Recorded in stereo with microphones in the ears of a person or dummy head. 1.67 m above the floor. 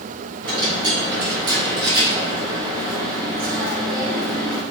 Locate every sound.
0.4 s a dropped coin: 60° right (ahead or behind), 1.9 m